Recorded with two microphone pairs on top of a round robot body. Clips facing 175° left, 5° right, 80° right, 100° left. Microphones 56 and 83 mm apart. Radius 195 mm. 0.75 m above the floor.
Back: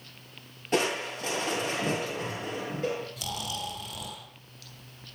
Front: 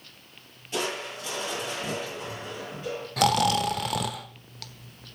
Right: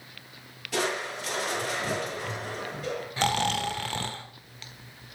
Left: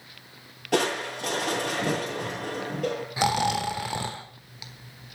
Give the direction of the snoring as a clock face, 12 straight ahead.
11 o'clock.